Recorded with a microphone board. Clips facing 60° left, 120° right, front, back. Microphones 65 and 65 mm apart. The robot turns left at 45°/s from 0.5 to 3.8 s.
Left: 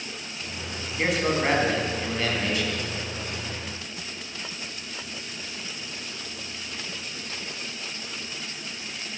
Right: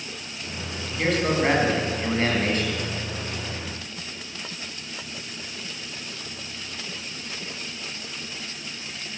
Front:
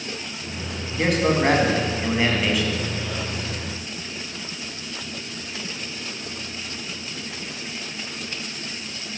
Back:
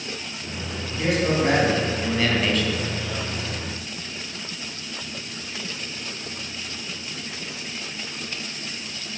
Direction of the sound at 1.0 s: 15° right.